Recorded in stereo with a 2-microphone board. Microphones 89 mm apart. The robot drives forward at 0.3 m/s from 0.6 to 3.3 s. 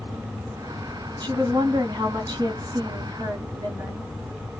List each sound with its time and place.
1.2 s a woman speaking: 45° right (ahead or behind), 1.4 m; by 4.1 s 40° right (ahead or behind), 1.4 m